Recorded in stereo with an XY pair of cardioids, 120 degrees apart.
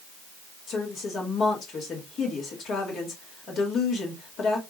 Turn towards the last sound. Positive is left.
turn(degrees=60)